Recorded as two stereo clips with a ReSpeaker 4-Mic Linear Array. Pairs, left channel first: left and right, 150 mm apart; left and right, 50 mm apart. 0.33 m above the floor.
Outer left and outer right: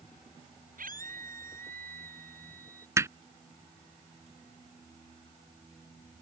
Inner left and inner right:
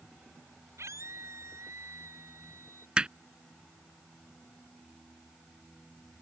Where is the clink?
No clink in this recording.